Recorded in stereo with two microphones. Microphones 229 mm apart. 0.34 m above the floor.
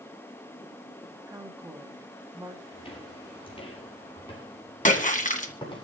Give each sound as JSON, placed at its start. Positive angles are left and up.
{"t": 1.3, "sound": "a woman speaking", "side_deg": -15, "distance_m": 2.5}
{"t": 2.7, "sound": "footsteps", "side_deg": 25, "distance_m": 7.5}
{"t": 4.8, "sound": "a splash", "side_deg": 35, "distance_m": 1.9}